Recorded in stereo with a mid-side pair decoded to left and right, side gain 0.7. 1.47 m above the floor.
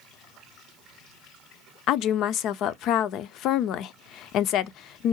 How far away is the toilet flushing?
I don't hear a toilet flushing.